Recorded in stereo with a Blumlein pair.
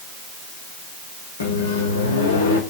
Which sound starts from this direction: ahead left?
A microwave, at 1.4 s.